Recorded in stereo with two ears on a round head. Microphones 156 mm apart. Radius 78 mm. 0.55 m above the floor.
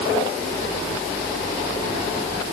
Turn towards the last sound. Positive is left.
No sound to turn to.